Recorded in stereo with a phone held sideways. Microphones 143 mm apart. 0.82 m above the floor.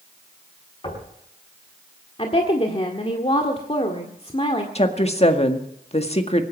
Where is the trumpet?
No trumpet in this recording.